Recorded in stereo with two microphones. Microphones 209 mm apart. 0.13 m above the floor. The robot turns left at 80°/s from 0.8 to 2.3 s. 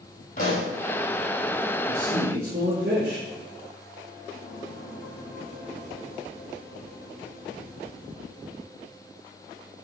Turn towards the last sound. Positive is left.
turn(degrees=-125)